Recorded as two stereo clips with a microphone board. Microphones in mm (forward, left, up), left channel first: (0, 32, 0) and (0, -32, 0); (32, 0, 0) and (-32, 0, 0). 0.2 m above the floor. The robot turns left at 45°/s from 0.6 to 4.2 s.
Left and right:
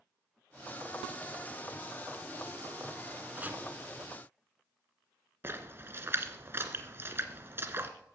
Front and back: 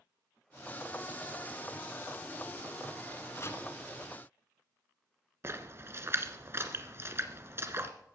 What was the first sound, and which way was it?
Chopping, 30° right.